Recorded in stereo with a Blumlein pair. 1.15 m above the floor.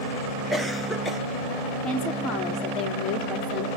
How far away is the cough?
About 0.9 m.